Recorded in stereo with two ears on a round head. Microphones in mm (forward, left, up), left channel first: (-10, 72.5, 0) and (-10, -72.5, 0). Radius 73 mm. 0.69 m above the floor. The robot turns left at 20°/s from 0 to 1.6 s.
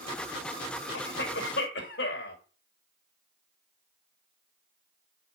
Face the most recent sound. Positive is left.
turn(degrees=65)  # may be behind; listen again after turning